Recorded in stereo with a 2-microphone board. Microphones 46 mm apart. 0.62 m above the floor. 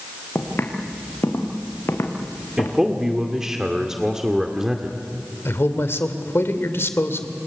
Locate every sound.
0.3 s footsteps: 60° left (ahead or behind), 4 m; by 2.8 s 80° left, 4.5 m
2.6 s a man speaking: 10° right (ahead or behind), 1.7 m
5.5 s a man speaking: 60° left (ahead or behind), 2 m